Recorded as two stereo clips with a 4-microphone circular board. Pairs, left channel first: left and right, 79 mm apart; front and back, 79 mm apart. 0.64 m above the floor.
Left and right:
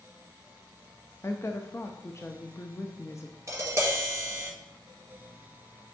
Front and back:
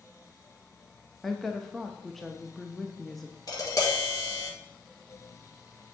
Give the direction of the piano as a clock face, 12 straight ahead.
I don't hear a piano.